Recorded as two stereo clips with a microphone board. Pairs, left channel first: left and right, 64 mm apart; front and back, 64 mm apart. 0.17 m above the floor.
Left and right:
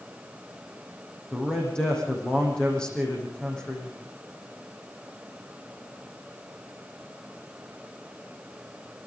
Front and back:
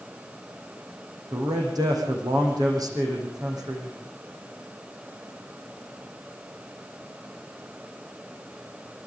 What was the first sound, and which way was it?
A man speaking, 170° left.